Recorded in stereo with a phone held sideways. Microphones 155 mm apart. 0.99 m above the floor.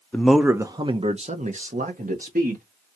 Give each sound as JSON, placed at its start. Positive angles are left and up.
{"t": 0.1, "sound": "a man speaking", "side_deg": 10, "distance_m": 0.6}